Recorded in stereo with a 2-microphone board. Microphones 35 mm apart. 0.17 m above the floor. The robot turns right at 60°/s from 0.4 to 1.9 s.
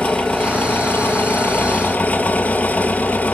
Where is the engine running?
45° left, 2.5 m; by 3.3 s 135° left, 2.5 m.